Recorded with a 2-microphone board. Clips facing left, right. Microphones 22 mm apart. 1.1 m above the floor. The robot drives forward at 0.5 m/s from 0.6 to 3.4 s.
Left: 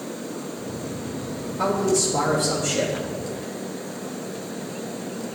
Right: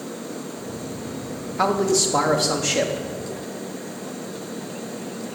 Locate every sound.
1.6 s a man speaking: 70° right (ahead or behind), 1.7 m; by 2.9 s 50° right (ahead or behind), 2.0 m